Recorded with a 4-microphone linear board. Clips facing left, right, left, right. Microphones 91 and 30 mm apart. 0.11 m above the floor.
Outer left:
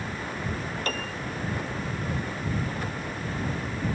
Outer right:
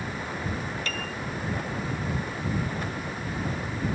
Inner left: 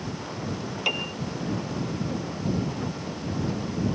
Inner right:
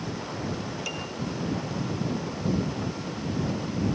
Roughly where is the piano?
Left.